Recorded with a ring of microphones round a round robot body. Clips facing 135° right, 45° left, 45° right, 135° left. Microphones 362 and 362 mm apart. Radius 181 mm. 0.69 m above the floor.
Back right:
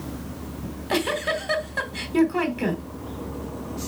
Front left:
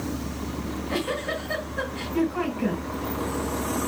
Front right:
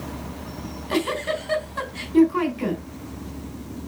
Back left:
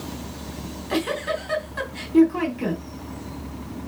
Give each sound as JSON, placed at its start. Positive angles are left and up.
{"t": 0.6, "sound": "a giggle", "azimuth_deg": -135, "distance_m": 3.0}